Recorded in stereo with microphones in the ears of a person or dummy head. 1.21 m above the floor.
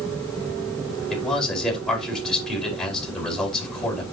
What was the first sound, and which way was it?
A man speaking, 5° left (ahead or behind).